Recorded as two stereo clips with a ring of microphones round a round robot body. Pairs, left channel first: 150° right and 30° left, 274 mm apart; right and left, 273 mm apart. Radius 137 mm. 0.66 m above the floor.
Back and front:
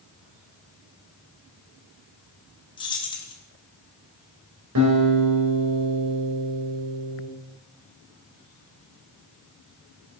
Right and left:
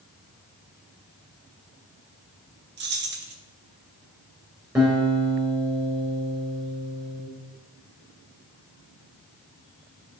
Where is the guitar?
10° left, 3 m.